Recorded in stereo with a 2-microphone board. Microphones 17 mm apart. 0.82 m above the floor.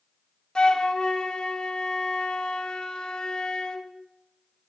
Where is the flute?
55° left (ahead or behind), 0.9 m.